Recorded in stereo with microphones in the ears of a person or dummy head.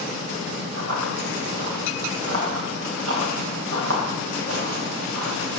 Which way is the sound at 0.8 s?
65° right (ahead or behind).